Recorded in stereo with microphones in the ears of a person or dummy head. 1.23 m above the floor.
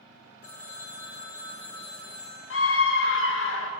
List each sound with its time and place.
0.4 s a phone ringing: 40° left (ahead or behind), 1.9 m
2.5 s a scream: 55° left (ahead or behind), 0.6 m